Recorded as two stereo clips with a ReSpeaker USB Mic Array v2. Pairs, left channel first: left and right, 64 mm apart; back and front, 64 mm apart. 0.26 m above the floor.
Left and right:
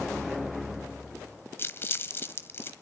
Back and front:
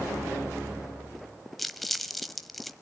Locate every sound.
1.6 s crumpling: 95° left, 1.1 m